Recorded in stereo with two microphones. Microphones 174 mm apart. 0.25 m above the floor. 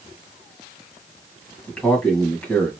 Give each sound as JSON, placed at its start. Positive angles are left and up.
{"t": 1.7, "sound": "a man speaking", "side_deg": 5, "distance_m": 1.4}